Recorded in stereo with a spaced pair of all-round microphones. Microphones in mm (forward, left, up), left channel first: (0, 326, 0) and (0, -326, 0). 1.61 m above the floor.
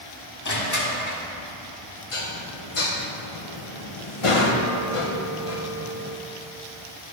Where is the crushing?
25° left (ahead or behind), 1.3 m.